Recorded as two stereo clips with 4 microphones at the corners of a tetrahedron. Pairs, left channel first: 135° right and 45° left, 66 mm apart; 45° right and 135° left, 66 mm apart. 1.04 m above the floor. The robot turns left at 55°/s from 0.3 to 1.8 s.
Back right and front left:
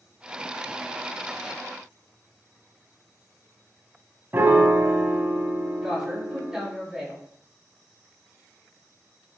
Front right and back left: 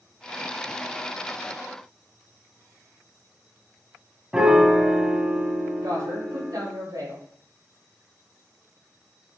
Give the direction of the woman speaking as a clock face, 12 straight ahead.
8 o'clock.